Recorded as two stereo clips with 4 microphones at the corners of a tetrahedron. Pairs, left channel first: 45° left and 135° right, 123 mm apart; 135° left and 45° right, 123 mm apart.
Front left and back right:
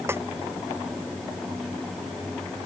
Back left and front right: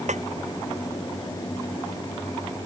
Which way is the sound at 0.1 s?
65° right.